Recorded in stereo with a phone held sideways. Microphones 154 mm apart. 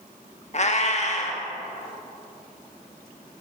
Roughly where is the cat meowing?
Left.